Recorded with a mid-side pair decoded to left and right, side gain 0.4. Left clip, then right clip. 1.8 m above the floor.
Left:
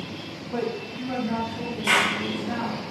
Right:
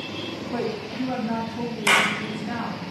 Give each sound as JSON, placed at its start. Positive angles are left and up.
{"t": 0.5, "sound": "a woman speaking", "azimuth_deg": -25, "distance_m": 1.1}
{"t": 1.9, "sound": "a clap", "azimuth_deg": -45, "distance_m": 1.9}